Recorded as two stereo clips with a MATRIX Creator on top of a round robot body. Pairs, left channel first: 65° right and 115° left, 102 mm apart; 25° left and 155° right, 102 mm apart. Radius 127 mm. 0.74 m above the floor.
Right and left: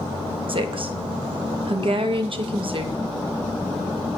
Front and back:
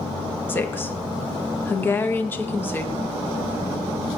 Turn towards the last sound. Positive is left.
turn(degrees=90)